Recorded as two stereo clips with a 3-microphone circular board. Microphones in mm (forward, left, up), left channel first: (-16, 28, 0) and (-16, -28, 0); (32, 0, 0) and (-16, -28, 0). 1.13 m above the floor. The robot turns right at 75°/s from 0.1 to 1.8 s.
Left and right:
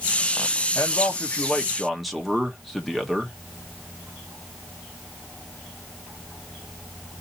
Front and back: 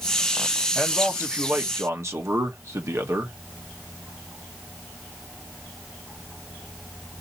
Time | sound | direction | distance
0.8 | a man speaking | 100° left | 1.0 m